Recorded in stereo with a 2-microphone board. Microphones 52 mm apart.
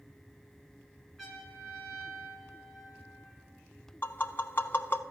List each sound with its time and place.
1.2 s a trumpet: centre (ahead or behind), 2.5 m
4.0 s tapping: 40° left (ahead or behind), 0.6 m